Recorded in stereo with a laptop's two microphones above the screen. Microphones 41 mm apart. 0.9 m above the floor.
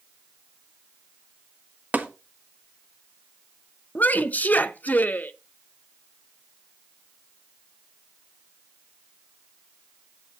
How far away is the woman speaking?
About 0.7 m.